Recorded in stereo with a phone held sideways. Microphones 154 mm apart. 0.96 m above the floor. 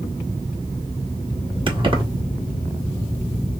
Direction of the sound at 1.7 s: 35° right (ahead or behind).